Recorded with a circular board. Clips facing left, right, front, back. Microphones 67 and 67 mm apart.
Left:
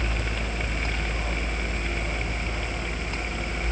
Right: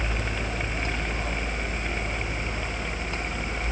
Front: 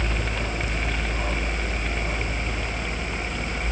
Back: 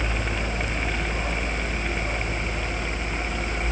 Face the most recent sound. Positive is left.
No sound to turn to.